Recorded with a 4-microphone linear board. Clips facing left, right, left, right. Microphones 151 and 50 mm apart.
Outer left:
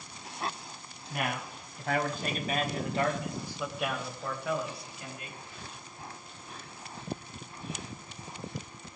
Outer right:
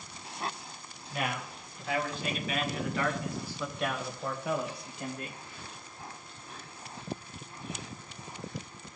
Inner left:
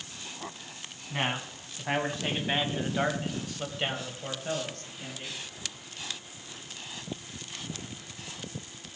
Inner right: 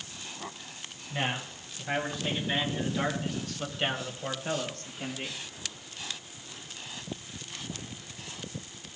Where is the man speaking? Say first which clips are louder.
Even, inner left 1 dB; 55° left (ahead or behind), 2.5 m; by 5.4 s 35° right (ahead or behind), 1.7 m.